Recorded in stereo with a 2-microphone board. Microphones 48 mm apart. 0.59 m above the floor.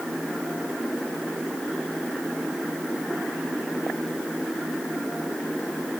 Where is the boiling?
I don't hear boiling.